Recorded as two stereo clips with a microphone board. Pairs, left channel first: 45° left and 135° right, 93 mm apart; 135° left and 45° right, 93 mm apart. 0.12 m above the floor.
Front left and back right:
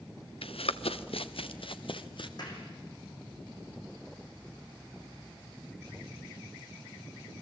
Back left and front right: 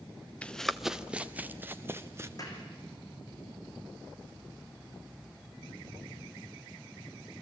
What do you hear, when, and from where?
0.4 s running footsteps: 60° left, 0.8 m; by 2.3 s 15° left, 1.8 m
2.4 s a clap: 85° left, 5 m